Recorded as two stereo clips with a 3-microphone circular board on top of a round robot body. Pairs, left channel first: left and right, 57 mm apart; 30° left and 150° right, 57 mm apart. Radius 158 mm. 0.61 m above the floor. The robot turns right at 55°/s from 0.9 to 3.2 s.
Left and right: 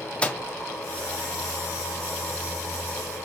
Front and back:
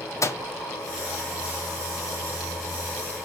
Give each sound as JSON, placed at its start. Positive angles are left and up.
{"t": 0.2, "sound": "a microwave", "azimuth_deg": 25, "distance_m": 1.4}